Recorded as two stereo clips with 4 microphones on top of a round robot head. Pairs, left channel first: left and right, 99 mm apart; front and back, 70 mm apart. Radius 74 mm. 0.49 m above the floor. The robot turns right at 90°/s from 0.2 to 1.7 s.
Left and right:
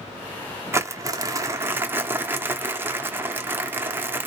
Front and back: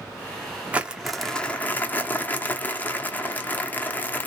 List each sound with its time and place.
0.7 s crumpling: 130° right, 0.6 m; by 4.3 s 40° right, 0.6 m